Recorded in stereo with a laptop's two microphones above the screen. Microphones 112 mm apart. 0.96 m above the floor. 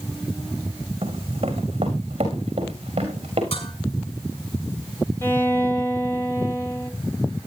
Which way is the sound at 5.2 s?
20° left (ahead or behind).